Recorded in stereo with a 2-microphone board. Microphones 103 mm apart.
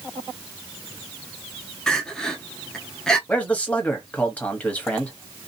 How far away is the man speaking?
About 1.0 m.